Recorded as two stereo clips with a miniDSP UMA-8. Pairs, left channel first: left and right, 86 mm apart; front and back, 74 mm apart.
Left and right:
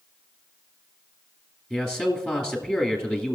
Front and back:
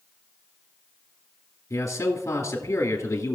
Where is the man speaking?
20° left, 2 m.